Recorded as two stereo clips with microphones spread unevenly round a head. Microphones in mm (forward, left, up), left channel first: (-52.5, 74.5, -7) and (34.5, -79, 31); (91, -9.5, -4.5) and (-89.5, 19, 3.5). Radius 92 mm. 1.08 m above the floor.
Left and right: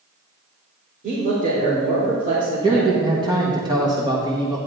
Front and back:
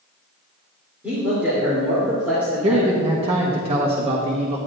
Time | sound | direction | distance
1.0 | a man speaking | 105° right | 3 m
2.6 | a man speaking | 130° right | 1.3 m